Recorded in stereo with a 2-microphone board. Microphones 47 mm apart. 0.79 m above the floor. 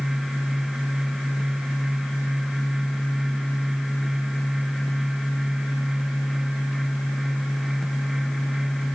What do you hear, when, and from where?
Only background noise.